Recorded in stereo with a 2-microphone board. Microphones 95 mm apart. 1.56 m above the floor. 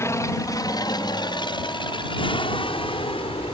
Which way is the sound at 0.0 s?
30° left (ahead or behind).